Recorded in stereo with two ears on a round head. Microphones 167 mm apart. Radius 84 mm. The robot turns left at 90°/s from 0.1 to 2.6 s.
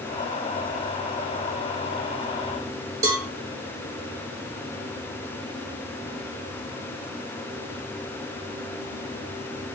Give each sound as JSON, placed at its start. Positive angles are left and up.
{"t": 3.0, "sound": "a cowbell", "side_deg": -20, "distance_m": 0.8}